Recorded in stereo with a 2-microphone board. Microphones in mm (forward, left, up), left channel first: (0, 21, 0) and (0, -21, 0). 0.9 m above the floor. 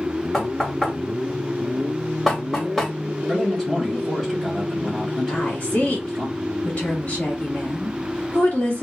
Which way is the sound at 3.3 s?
10° left (ahead or behind).